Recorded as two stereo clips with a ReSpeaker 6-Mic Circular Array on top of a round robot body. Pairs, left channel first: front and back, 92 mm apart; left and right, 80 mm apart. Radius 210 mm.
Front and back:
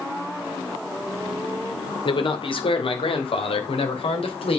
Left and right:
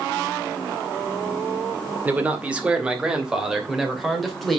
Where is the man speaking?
20° right, 2 m; by 4.6 s 5° left, 3 m.